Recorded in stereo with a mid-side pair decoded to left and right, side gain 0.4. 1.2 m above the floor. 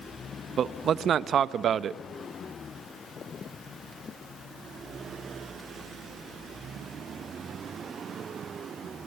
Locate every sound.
0.6 s a man speaking: 60° right, 0.9 m